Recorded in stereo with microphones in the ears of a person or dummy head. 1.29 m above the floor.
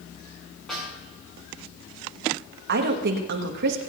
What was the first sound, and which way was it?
A snare drum, 5° left (ahead or behind).